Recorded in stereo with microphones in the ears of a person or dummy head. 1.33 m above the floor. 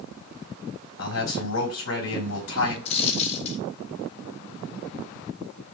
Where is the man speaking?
70° left (ahead or behind), 4 m.